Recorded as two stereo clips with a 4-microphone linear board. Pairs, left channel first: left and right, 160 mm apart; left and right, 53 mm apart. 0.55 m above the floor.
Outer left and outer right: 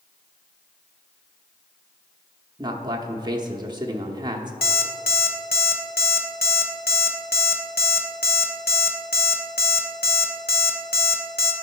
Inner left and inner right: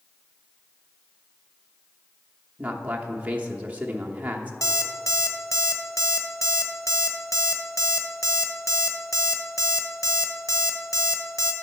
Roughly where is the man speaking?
Right.